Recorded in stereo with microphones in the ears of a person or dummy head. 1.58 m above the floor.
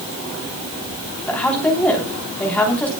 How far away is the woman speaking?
About 3 m.